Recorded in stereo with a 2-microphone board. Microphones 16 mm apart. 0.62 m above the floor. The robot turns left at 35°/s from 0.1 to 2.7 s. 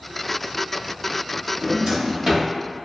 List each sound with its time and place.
1.6 s a drawer: 50° right (ahead or behind), 1.4 m; by 2.5 s 20° right (ahead or behind), 1.4 m